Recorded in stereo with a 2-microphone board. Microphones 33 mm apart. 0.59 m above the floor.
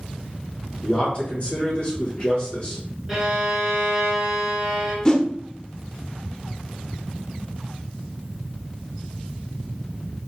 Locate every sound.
0.8 s a man speaking: 35° left (ahead or behind), 2 m
3.1 s a violin: 15° right (ahead or behind), 1.7 m
5.0 s a whoosh: 25° left (ahead or behind), 0.5 m